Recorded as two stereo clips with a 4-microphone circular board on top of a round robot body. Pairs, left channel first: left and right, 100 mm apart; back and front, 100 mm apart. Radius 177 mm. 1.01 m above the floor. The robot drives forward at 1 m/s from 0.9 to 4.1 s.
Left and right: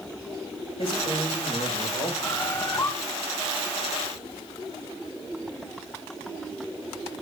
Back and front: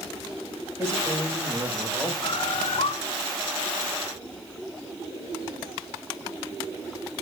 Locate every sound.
0.8 s a man speaking: 60° left, 6.5 m; by 2.1 s 70° left, 6 m
2.2 s a bird: 145° left, 1.5 m; by 2.9 s 155° left, 2 m